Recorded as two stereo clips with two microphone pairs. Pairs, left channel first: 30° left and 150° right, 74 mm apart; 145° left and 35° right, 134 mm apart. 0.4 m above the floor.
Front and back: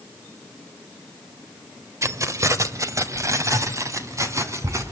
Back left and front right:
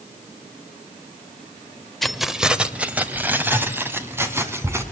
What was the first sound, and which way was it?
Keys jangling, 125° right.